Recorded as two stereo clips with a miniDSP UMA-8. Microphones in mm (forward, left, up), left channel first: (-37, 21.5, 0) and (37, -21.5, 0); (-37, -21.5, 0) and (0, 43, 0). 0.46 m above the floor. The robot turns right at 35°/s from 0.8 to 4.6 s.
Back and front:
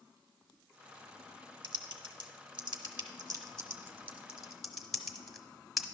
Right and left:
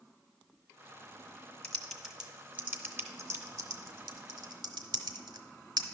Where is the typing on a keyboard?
45° right, 0.8 m; by 5.9 s 60° left, 0.8 m.